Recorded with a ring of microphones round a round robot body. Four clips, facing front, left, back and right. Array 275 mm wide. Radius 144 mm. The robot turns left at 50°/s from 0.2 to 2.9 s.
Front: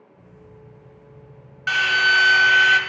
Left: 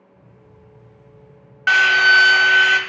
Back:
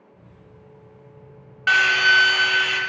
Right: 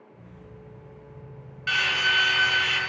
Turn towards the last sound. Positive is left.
turn(degrees=55)